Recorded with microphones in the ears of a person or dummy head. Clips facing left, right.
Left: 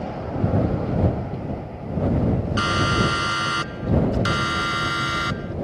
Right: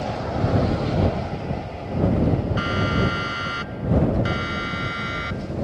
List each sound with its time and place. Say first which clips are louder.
2.6 s a siren: even; 75° left (ahead or behind); by 5.5 s 90° left